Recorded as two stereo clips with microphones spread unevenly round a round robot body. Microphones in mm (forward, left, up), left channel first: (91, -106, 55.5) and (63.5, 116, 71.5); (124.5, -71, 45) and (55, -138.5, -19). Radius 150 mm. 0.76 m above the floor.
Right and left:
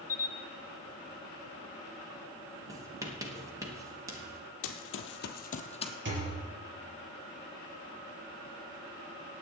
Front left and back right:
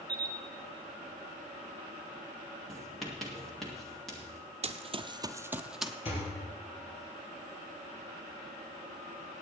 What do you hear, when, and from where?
0.1 s a camera shutter: 165° right, 1.4 m
2.7 s writing: 175° left, 1.4 m
4.6 s running footsteps: 105° right, 1.1 m; by 5.9 s 15° right, 1.3 m
6.0 s a thud: 65° left, 4 m